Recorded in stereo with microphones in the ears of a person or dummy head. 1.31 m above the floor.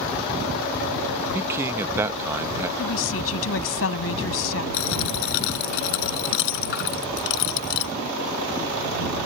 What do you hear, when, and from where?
1.3 s a man speaking: 15° right (ahead or behind)
2.8 s a woman speaking: 75° left (ahead or behind)
4.7 s a dropped coin: 65° left (ahead or behind)